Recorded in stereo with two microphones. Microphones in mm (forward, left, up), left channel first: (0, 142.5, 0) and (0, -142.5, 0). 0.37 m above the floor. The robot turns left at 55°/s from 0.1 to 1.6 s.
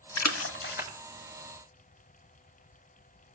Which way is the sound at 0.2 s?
65° left (ahead or behind).